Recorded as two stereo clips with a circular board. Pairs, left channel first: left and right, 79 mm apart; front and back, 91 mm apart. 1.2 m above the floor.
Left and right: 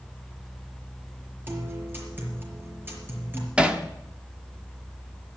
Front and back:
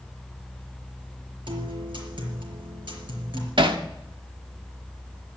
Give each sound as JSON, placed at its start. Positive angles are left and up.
{"t": 1.5, "sound": "a guitar", "azimuth_deg": -155, "distance_m": 4.5}
{"t": 3.6, "sound": "hammering", "azimuth_deg": -165, "distance_m": 1.3}